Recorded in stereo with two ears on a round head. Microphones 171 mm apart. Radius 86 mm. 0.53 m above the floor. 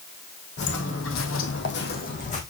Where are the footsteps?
55° left (ahead or behind), 1.9 m; by 2.4 s 35° left (ahead or behind), 2 m.